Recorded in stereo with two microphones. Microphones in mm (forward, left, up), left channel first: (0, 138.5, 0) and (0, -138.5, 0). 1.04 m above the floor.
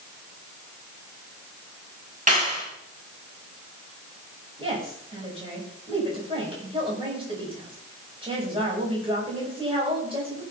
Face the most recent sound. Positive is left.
turn(degrees=-20)  # may be behind; listen again after turning